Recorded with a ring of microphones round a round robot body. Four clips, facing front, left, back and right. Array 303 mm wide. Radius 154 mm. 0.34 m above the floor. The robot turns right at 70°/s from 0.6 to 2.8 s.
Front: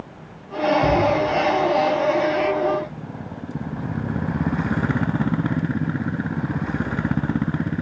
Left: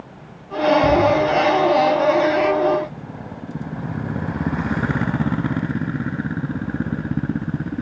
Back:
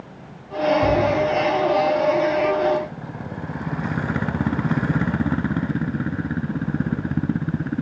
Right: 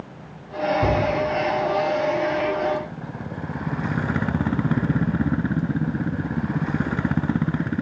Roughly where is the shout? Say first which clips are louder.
Left 5 dB, even; right.